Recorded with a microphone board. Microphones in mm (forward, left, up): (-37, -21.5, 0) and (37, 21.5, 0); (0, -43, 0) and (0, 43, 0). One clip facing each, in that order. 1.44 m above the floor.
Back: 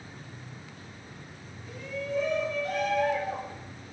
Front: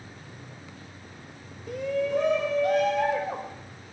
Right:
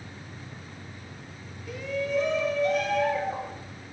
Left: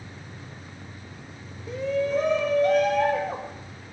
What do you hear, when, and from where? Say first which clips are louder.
1.7 s a shout: front 8 dB, left 5 dB; 35° left, 0.5 m; by 3.6 s 50° left, 1.7 m